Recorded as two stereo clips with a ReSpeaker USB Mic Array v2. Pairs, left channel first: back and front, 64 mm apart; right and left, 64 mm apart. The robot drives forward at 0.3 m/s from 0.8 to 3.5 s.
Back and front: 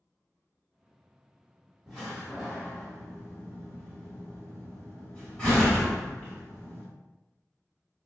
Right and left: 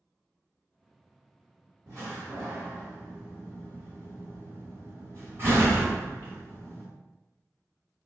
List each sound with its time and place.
1.9 s a door slam: 90° left, 1.2 m; by 6.9 s 120° left, 1.3 m